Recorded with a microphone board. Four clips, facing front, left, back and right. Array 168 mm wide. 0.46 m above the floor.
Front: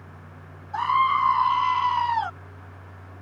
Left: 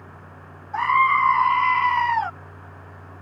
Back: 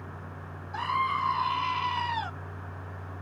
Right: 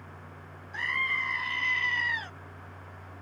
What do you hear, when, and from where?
0.7 s a scream: 60° left